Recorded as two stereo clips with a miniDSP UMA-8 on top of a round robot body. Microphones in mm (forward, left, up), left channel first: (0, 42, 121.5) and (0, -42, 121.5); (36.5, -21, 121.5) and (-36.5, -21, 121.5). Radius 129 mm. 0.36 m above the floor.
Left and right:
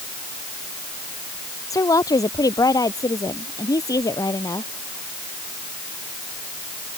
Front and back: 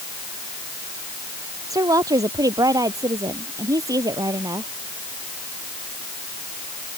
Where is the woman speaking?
140° left.